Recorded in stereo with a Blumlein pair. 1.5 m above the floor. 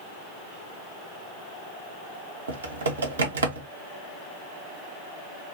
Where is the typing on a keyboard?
70° right, 1.1 m.